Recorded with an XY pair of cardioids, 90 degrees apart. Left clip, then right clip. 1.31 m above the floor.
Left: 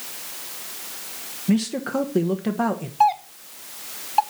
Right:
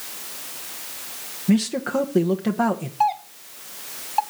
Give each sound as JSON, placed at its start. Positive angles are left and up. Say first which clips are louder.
{"t": 1.5, "sound": "a man speaking", "louder": "right 2 dB", "azimuth_deg": -10, "distance_m": 1.2}
{"t": 3.0, "sound": "a doorbell", "louder": "left 3 dB", "azimuth_deg": 20, "distance_m": 0.6}